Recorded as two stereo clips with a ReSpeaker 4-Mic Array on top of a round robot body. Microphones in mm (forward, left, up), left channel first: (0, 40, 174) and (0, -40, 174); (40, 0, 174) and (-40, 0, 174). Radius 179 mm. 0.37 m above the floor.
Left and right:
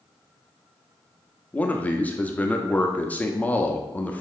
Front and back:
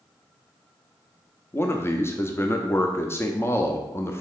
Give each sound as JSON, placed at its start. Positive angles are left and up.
{"t": 1.5, "sound": "a man speaking", "azimuth_deg": 30, "distance_m": 1.1}